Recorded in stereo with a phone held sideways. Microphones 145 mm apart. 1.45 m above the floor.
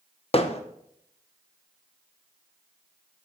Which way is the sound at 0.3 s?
45° left (ahead or behind).